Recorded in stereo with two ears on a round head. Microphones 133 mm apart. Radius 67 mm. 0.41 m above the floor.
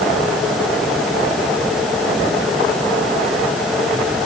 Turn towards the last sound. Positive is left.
No sound to turn to.